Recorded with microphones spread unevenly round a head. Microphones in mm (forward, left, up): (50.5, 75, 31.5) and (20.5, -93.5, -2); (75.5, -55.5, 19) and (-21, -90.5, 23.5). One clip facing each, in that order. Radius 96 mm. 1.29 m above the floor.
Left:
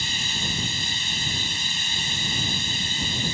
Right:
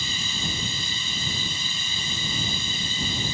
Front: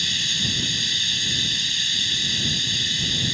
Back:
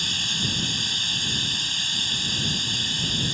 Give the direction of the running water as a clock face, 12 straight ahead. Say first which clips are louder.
Even, even; 4 o'clock.